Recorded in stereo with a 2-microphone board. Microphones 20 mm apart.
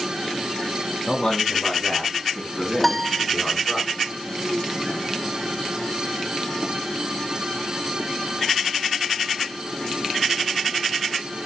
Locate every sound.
1.1 s a man speaking: 10° right (ahead or behind), 4 m; by 3.8 s 15° right (ahead or behind), 6 m
2.8 s a piano: centre (ahead or behind), 0.6 m